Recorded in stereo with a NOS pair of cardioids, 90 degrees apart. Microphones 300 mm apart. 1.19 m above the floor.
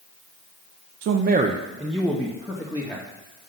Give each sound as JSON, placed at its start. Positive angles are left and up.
{"t": 1.0, "sound": "a man speaking", "azimuth_deg": -55, "distance_m": 0.5}